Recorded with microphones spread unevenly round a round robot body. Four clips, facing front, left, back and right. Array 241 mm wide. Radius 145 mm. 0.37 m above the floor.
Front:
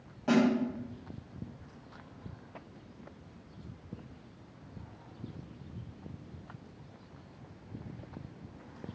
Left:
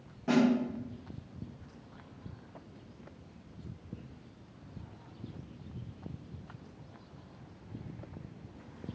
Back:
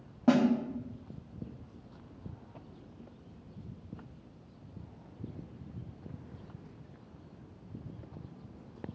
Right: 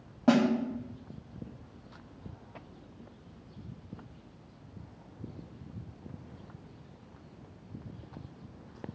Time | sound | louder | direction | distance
0.3 | a snare drum | right 3 dB, back 1 dB | 115° right | 1.7 m